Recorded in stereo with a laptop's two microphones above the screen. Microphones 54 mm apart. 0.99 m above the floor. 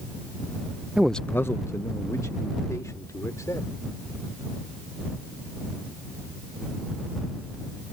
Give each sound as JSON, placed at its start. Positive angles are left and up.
{"t": 1.0, "sound": "a man speaking", "side_deg": -20}